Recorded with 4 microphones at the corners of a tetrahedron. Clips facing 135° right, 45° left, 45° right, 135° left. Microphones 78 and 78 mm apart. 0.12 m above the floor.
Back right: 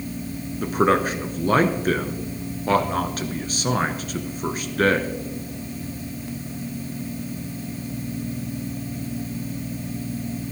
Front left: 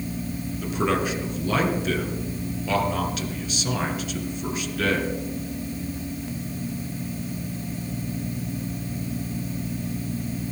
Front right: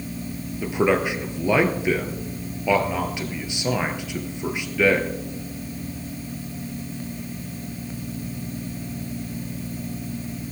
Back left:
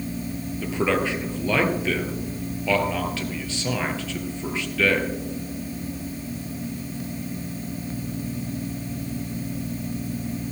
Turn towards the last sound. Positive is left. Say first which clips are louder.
# back right 5 dB, front right 3 dB
turn(degrees=-115)